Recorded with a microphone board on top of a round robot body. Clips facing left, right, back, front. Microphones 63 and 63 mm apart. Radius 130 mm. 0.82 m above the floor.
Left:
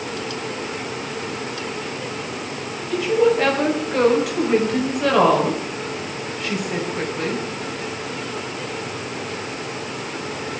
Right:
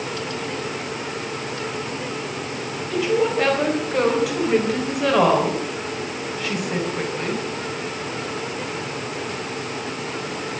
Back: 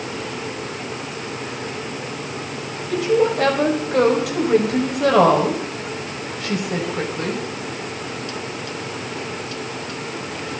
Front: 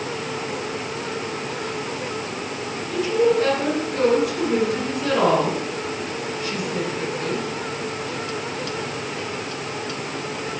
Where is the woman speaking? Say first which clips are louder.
Left 3 dB, back 1 dB; straight behind, 5 m.